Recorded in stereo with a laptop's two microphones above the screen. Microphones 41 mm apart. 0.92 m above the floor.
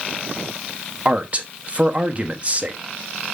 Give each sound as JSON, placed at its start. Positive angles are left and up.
{"t": 1.1, "sound": "a man speaking", "side_deg": -30, "distance_m": 1.0}